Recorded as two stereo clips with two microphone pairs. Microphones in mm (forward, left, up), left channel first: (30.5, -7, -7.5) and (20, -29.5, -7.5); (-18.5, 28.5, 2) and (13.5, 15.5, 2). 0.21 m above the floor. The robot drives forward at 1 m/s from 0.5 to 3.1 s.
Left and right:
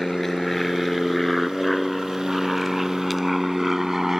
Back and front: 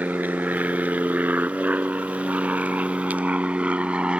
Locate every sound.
0.0 s an aircraft: 15° right; by 4.2 s 50° right